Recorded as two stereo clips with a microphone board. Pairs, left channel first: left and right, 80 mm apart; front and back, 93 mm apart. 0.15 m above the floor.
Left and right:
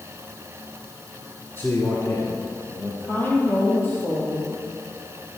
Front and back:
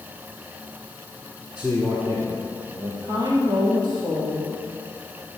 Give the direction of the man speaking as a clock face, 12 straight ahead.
8 o'clock.